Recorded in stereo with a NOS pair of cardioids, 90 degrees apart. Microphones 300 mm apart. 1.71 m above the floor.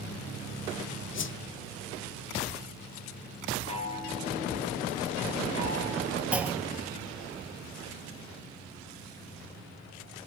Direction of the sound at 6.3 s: 5° right.